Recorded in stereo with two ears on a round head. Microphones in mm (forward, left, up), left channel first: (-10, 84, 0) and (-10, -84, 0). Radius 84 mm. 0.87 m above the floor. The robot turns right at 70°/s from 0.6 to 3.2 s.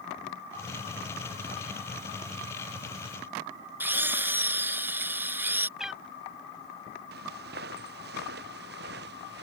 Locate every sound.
3.8 s a drill: 10° right (ahead or behind)
5.8 s a cat meowing: 5° right (ahead or behind)
7.1 s footsteps: 55° right (ahead or behind)